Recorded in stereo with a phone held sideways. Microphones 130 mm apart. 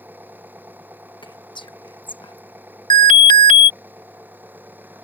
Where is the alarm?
75° right (ahead or behind).